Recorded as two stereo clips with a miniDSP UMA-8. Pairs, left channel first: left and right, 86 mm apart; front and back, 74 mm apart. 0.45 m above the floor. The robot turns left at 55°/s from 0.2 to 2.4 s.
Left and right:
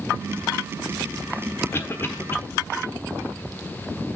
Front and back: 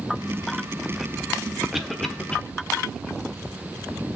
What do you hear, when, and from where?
1.7 s a cough: 95° left, 1.1 m; by 2.4 s 60° left, 1.1 m